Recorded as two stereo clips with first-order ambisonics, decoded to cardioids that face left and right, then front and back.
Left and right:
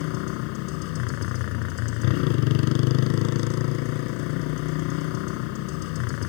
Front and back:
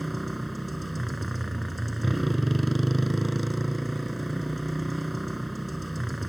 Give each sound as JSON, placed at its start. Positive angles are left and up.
{"t": 0.0, "sound": "a motorcycle", "azimuth_deg": 95}